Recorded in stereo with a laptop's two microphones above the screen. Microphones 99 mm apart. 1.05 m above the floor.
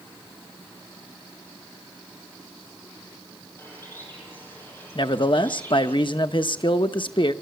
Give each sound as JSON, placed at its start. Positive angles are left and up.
{"t": 3.6, "sound": "a bird", "side_deg": 25, "distance_m": 8.5}
{"t": 5.0, "sound": "a man speaking", "side_deg": 55, "distance_m": 1.0}